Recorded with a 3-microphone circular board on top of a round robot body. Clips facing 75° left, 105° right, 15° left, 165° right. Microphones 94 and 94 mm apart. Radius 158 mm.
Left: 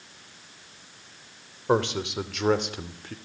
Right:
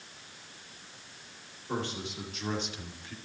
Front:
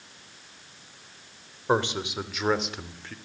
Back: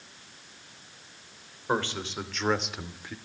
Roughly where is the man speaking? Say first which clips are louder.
Left 11 dB, front 4 dB; left.